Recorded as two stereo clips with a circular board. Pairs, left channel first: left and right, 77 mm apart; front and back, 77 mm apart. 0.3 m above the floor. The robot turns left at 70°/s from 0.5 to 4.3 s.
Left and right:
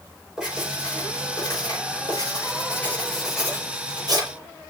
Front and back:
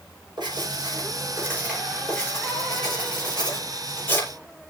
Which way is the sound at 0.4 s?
170° right.